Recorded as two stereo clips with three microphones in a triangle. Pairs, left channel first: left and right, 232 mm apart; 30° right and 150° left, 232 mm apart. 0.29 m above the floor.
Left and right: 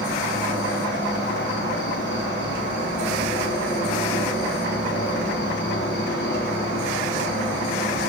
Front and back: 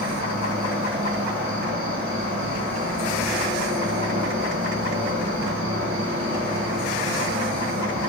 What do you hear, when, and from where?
0.0 s an insect: 125° left, 1.1 m